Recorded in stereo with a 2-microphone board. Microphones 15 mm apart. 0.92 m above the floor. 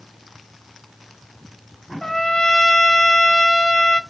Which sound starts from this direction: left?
A trumpet, at 2.0 s.